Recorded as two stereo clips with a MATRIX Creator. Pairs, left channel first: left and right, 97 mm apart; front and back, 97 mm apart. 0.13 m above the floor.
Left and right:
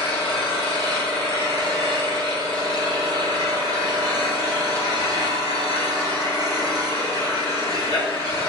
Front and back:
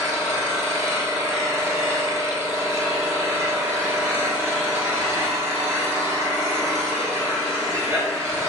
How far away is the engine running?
About 1.1 m.